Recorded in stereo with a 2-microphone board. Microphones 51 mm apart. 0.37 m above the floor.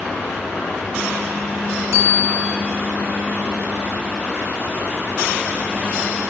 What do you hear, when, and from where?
1.9 s a bicycle bell: 65° right (ahead or behind), 3 m